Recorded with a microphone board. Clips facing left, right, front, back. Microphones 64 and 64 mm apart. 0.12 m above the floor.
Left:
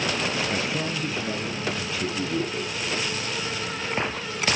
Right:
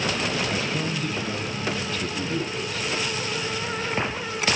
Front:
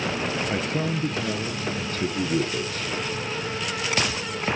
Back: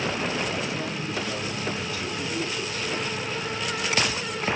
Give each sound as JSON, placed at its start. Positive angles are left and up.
{"t": 0.5, "sound": "a man speaking", "azimuth_deg": 15, "distance_m": 2.5}